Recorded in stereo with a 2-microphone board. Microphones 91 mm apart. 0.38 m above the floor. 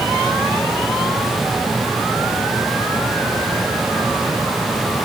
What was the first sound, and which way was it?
Only background noise.